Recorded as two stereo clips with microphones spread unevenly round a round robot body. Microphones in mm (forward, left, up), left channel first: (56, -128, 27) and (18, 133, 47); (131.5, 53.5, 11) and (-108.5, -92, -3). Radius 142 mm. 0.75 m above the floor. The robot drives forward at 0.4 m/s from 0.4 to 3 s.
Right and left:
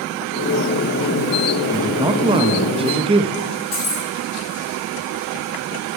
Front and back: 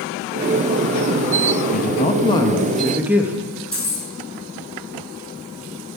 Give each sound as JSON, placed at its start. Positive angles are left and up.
{"t": 1.7, "sound": "a woman speaking", "azimuth_deg": 25, "distance_m": 0.8}
{"t": 3.7, "sound": "keys jangling", "azimuth_deg": -55, "distance_m": 5.5}